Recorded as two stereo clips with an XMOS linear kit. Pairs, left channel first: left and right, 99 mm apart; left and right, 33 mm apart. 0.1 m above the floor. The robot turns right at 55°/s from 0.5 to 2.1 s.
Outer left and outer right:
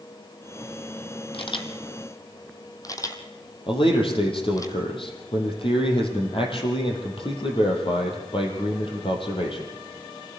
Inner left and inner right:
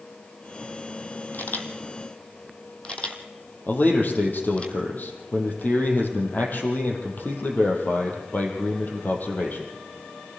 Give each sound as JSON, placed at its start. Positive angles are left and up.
{"t": 1.3, "sound": "a camera shutter", "side_deg": 70, "distance_m": 1.8}
{"t": 3.7, "sound": "a man speaking", "side_deg": 60, "distance_m": 4.5}